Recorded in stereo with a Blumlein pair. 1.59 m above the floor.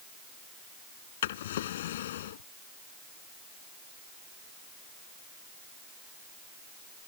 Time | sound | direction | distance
1.2 | a drawer | 60° left | ?